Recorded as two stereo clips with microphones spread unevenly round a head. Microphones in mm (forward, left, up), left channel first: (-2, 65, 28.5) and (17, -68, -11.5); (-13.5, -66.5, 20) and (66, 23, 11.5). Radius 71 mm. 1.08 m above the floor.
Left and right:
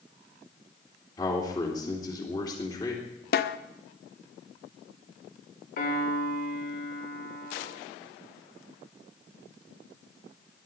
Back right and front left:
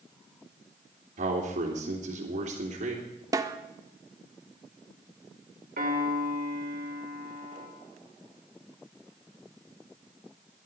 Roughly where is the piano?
Left.